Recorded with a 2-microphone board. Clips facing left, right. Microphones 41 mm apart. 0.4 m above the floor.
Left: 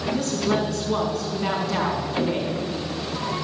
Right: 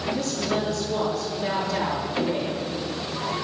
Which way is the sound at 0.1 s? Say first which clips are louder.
Left 5 dB; 75° left (ahead or behind).